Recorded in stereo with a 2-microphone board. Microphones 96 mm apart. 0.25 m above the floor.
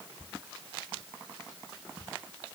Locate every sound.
Only background noise.